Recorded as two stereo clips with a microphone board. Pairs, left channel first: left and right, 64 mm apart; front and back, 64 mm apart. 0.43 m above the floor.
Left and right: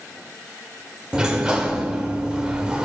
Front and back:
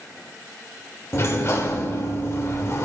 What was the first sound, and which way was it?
A sliding door, 20° right.